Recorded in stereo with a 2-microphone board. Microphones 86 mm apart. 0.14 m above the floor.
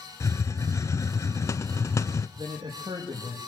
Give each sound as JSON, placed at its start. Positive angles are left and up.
{"t": 0.2, "sound": "a hiss", "side_deg": 40, "distance_m": 0.5}
{"t": 2.4, "sound": "a man speaking", "side_deg": -75, "distance_m": 5.0}